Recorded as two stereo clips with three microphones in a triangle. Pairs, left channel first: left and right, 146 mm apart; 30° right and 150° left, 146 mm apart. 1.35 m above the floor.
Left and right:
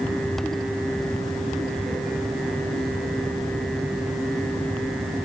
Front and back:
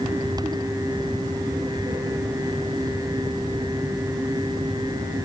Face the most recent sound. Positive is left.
No sound to turn to.